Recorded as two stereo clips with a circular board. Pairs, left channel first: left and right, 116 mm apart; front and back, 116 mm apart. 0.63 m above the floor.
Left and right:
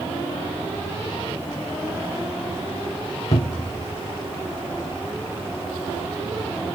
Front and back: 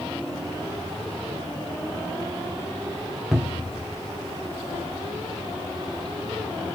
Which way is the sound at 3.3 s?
95° left.